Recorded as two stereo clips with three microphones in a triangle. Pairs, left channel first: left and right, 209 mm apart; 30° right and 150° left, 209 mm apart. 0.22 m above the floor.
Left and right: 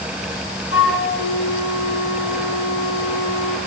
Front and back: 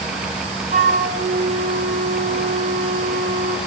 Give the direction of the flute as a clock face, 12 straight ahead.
9 o'clock.